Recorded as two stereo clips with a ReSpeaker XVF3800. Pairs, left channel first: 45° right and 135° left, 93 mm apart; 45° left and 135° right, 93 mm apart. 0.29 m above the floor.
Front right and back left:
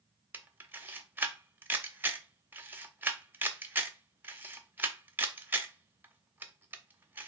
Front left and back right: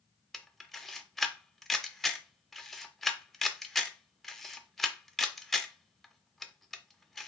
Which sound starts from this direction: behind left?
A camera shutter, at 0.3 s.